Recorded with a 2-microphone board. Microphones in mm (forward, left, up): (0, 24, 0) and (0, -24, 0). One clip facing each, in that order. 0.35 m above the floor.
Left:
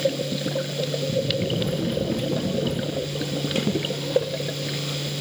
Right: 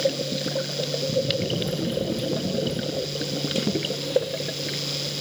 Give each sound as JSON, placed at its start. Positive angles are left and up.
{"t": 1.6, "sound": "running footsteps", "side_deg": 45, "distance_m": 1.9}